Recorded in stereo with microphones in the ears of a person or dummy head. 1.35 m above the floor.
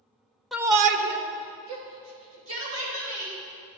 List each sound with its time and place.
0.5 s a shout: centre (ahead or behind), 0.5 m; by 3.3 s 75° right (ahead or behind), 3 m